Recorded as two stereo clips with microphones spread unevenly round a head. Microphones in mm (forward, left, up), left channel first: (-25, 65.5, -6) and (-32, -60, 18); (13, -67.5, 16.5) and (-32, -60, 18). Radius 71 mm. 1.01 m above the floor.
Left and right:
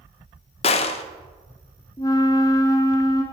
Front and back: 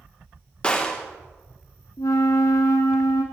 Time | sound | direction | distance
0.6 | a gunshot | 65° left | 0.5 m
2.0 | a flute | 15° left | 1.1 m